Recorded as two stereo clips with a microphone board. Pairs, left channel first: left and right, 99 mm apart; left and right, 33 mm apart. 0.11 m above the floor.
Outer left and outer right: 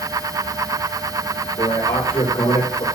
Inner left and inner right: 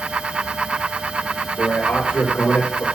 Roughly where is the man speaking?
Left.